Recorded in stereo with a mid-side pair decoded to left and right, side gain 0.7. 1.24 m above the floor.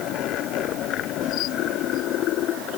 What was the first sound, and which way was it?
Only background noise.